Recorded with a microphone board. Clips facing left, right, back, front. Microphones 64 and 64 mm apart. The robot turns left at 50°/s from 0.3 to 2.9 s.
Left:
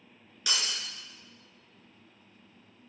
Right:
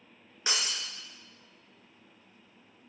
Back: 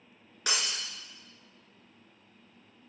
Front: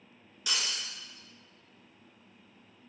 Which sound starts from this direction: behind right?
Breaking glass, at 0.5 s.